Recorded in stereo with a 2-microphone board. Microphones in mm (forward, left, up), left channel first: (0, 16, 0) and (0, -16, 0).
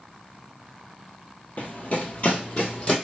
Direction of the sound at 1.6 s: 45° left (ahead or behind).